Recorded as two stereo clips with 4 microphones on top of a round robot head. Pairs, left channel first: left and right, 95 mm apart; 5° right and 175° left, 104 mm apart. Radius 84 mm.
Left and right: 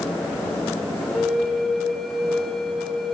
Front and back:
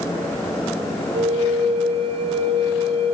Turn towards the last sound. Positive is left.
turn(degrees=175)